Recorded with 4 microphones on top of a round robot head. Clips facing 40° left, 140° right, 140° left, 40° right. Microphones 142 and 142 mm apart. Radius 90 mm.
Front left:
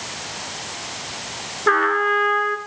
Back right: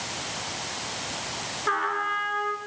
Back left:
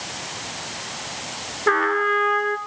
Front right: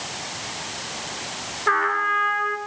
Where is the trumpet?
80° left, 1.6 m.